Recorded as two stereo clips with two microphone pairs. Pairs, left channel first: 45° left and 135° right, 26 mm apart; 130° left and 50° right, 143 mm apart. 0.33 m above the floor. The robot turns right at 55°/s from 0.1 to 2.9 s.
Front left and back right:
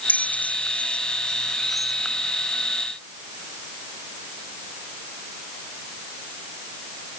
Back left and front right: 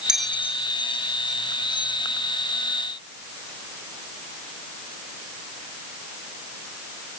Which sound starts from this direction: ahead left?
A bell, at 0.1 s.